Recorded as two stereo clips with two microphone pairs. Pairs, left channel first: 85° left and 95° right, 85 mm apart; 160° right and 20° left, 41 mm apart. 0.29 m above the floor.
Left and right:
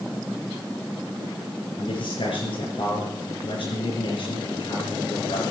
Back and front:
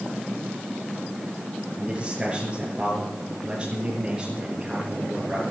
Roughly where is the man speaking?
Left.